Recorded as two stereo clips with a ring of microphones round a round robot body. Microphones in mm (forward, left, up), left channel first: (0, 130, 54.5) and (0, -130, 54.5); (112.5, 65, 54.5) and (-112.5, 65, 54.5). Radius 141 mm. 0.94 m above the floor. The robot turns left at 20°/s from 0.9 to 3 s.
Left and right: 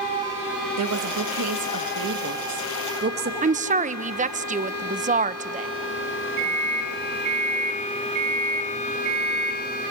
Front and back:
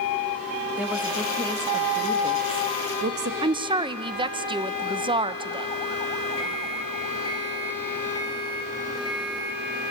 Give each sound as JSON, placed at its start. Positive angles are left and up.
{"t": 0.8, "sound": "a woman speaking", "azimuth_deg": -95, "distance_m": 1.3}
{"t": 3.4, "sound": "a woman speaking", "azimuth_deg": -130, "distance_m": 0.6}
{"t": 6.4, "sound": "a microwave", "azimuth_deg": -75, "distance_m": 3.5}